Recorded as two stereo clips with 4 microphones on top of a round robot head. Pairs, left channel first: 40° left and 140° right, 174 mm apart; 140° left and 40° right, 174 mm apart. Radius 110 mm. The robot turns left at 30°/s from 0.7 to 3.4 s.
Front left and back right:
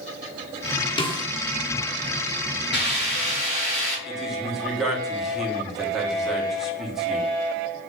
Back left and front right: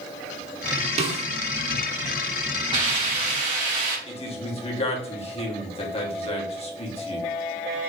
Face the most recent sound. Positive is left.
turn(degrees=135)